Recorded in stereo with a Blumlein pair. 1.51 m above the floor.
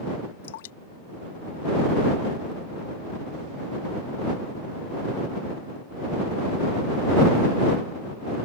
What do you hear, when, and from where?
0.4 s dripping: 55° left